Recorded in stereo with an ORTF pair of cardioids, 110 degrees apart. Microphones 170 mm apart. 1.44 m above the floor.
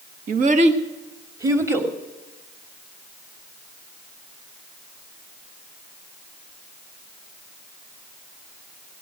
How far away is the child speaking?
About 1.3 m.